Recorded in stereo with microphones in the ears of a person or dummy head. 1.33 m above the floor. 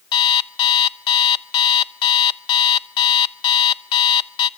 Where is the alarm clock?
25° left (ahead or behind), 0.7 m.